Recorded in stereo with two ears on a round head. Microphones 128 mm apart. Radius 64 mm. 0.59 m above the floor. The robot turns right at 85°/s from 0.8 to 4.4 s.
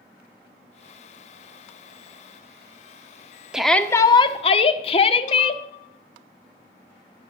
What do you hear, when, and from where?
3.5 s a shout: 10° right, 1.1 m; by 5.6 s 65° left, 1.1 m